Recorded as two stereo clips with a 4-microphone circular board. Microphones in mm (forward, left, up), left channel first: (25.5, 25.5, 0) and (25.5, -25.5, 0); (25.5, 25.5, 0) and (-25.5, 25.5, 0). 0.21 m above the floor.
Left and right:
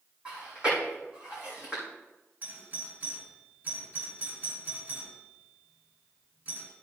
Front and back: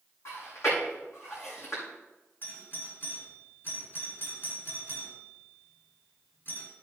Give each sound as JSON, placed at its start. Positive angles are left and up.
{"t": 0.2, "sound": "chewing", "azimuth_deg": -20, "distance_m": 6.0}
{"t": 2.4, "sound": "a doorbell", "azimuth_deg": -40, "distance_m": 4.0}